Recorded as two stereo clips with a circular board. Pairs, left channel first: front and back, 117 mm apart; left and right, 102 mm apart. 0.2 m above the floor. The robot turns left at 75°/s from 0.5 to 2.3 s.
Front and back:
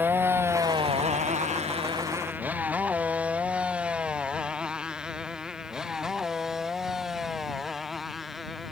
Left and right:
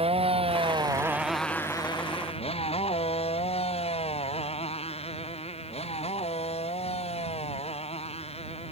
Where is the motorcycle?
105° right; by 8.7 s 90° left.